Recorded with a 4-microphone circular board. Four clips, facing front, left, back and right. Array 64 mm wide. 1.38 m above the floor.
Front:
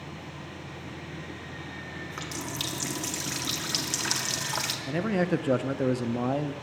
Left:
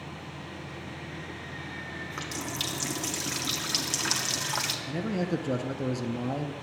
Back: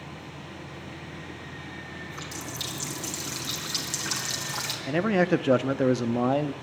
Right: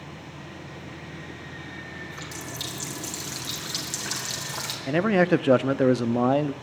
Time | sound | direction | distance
2.1 | a running tap | 45° left | 1.9 m
4.9 | a man speaking | 110° right | 0.5 m